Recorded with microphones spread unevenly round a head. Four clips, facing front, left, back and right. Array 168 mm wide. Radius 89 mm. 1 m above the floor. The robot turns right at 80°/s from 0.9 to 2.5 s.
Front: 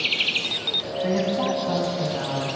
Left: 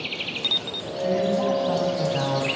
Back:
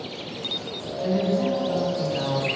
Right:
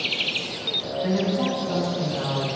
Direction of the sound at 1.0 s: 20° right.